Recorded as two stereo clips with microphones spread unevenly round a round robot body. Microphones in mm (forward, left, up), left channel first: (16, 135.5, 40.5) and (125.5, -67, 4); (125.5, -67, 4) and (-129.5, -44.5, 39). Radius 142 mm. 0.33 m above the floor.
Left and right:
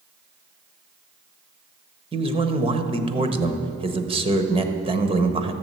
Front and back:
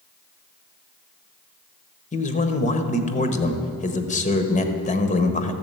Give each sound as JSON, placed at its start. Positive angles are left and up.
{"t": 2.1, "sound": "a man speaking", "azimuth_deg": -30, "distance_m": 1.1}